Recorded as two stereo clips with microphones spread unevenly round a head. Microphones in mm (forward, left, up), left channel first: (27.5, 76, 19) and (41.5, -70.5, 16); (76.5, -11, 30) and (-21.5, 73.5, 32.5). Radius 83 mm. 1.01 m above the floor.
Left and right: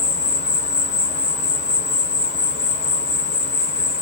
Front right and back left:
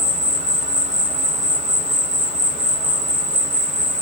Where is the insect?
130° left, 1.3 m.